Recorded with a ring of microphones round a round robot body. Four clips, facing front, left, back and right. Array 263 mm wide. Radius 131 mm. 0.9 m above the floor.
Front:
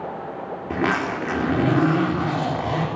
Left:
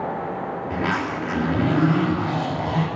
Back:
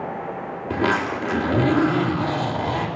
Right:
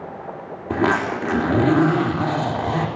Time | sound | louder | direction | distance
0.7 | a zipper | right 7 dB, back 1 dB | 80° right | 2.5 m